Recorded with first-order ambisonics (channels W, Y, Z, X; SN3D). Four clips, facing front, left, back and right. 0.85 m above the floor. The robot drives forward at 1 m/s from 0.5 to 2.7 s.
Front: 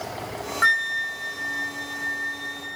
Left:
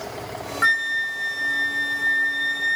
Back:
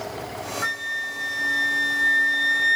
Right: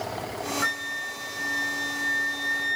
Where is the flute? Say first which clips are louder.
Left 12 dB, front 7 dB; 40° left, 0.9 m; by 2.8 s 165° left, 1.9 m.